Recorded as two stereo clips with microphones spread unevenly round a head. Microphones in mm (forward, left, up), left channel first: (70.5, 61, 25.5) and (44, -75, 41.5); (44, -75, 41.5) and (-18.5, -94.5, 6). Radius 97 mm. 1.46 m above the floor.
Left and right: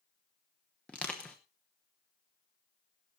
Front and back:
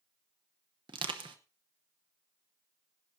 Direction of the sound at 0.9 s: 165° left.